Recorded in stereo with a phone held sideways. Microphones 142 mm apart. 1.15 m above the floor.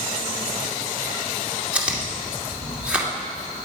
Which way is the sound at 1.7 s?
10° right (ahead or behind).